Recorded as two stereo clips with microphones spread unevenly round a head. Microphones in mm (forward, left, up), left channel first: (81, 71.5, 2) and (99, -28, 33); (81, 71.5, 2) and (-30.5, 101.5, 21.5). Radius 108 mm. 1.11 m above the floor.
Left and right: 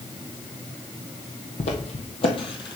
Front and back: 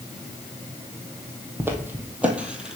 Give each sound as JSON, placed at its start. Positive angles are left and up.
{"t": 1.6, "sound": "footsteps", "azimuth_deg": 115, "distance_m": 1.5}